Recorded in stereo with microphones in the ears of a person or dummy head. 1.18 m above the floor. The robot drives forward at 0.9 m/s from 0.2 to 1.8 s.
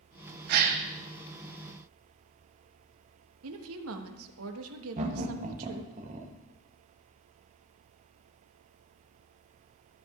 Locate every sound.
0.5 s a gasp: 55° right (ahead or behind), 0.8 m; by 0.8 s 45° right (ahead or behind), 1.0 m
3.4 s a woman speaking: 80° right, 1.2 m
5.0 s laughter: 35° right (ahead or behind), 1.3 m